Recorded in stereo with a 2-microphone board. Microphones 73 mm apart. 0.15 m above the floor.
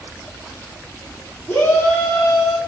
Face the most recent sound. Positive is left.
turn(degrees=0)  # may be behind; listen again after turning